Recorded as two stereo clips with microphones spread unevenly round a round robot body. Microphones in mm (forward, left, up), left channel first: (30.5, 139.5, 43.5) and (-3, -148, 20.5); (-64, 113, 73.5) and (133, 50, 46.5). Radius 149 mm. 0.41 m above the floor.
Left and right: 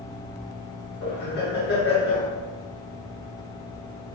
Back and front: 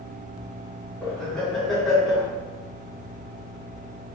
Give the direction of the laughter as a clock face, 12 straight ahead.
10 o'clock.